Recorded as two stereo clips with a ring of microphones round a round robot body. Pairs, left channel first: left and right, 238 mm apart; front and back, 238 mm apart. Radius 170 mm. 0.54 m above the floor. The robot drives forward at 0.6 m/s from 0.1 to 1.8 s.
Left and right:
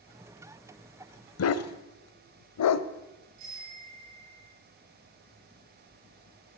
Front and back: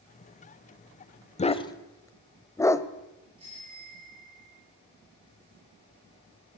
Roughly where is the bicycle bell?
Right.